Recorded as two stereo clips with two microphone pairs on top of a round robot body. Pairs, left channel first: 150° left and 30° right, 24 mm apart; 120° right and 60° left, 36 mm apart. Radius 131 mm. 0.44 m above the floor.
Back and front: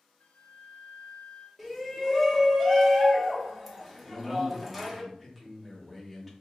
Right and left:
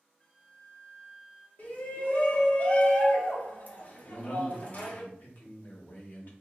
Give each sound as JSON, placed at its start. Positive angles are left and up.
{"t": 0.2, "sound": "a flute", "azimuth_deg": 165, "distance_m": 0.7}
{"t": 1.6, "sound": "a shout", "azimuth_deg": -135, "distance_m": 0.9}
{"t": 4.0, "sound": "a man speaking", "azimuth_deg": -140, "distance_m": 1.1}